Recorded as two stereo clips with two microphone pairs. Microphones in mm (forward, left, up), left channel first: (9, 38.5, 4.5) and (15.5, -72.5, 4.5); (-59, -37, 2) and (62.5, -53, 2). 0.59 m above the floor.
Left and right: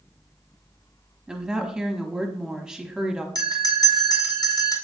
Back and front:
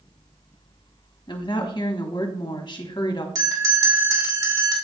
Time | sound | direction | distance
1.3 | a woman speaking | 165° right | 1.0 m
3.4 | a bell | 45° left | 2.5 m